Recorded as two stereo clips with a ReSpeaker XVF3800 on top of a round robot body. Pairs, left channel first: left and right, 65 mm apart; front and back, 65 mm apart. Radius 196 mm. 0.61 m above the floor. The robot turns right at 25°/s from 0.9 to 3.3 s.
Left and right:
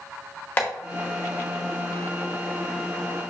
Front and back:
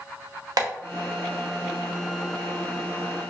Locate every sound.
0.6 s tapping: 155° left, 0.8 m